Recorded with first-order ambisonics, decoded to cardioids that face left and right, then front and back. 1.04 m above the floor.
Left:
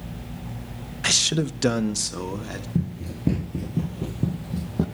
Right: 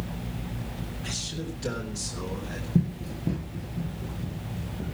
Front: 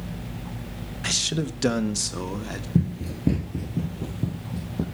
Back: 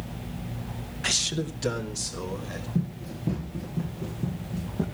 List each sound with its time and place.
1.0 s a man speaking: 95° left, 0.8 m; by 2.6 s 40° left, 2.5 m
2.8 s running footsteps: 10° right, 1.1 m; by 4.8 s 75° left, 3 m